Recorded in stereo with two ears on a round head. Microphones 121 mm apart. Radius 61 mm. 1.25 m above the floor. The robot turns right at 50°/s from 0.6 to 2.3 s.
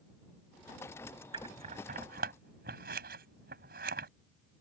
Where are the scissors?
35° right (ahead or behind); by 4.1 s 85° right.